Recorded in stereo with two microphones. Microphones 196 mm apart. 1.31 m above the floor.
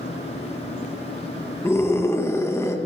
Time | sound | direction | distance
1.6 | a scream | 15° left (ahead or behind) | 1.7 m